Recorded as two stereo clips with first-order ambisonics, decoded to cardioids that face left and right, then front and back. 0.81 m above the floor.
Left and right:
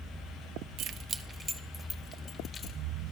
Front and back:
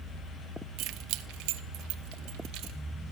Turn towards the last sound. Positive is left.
turn(degrees=150)